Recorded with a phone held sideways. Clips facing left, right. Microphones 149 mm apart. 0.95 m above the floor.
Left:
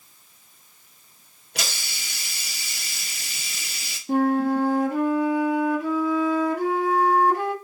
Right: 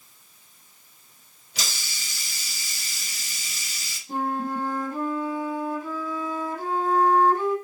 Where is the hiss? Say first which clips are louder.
Left 3 dB; 65° left (ahead or behind), 0.7 m.